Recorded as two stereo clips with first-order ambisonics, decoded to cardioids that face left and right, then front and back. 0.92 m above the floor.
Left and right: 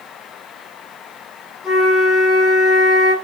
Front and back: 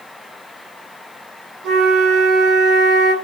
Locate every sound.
1.6 s a flute: 145° left, 4 m